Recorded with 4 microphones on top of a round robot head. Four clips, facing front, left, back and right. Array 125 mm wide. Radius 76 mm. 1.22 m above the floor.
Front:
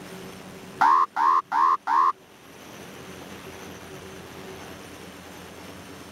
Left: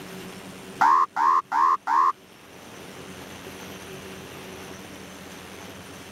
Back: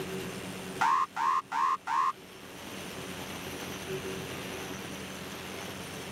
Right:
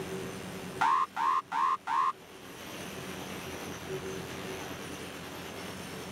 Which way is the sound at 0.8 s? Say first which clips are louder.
Left 9 dB, front 8 dB; 45° left.